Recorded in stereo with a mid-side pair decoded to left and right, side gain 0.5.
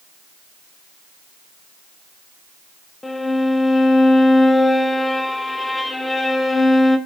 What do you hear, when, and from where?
3.0 s a violin: 15° left, 0.7 m